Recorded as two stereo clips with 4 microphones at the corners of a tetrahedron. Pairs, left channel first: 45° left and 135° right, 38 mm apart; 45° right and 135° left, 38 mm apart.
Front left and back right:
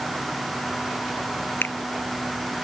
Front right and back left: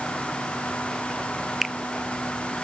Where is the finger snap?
45° left.